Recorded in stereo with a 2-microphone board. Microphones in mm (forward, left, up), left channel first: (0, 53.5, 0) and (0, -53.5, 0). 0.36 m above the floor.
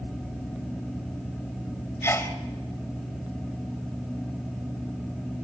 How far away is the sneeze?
About 1.9 m.